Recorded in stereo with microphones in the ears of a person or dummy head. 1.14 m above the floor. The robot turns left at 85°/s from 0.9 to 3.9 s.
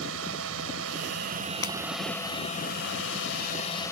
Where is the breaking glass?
20° left (ahead or behind); by 1.8 s 10° left (ahead or behind).